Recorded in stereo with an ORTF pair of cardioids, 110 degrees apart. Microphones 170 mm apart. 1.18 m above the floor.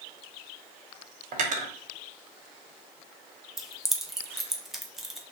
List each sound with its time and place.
1.3 s cutlery clinking: 50° right, 0.9 m
3.6 s keys jangling: straight ahead, 0.5 m